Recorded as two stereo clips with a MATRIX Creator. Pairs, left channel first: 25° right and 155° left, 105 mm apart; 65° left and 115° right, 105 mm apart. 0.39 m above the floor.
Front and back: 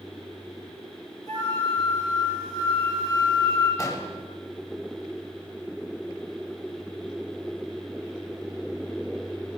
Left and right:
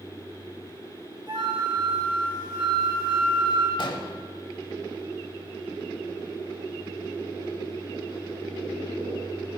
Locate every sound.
1.3 s a flute: 70° right, 2.5 m
3.8 s an explosion: 30° left, 0.7 m